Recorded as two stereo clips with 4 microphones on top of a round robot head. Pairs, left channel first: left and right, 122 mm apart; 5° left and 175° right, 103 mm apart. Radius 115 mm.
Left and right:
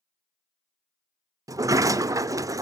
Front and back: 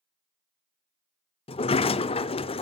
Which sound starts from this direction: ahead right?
A sliding door, at 1.5 s.